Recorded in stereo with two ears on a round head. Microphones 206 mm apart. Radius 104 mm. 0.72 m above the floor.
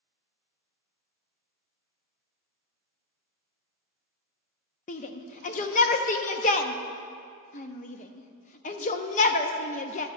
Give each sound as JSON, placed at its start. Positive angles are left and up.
{"t": 4.9, "sound": "a shout", "side_deg": 35, "distance_m": 0.6}